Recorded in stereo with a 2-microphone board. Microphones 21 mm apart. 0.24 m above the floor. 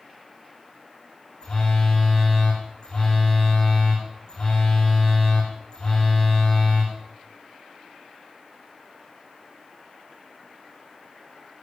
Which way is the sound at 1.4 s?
45° left (ahead or behind).